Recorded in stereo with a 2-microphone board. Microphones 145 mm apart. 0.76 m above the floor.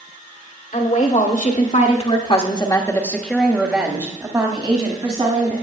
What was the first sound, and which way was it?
A woman speaking, 70° left (ahead or behind).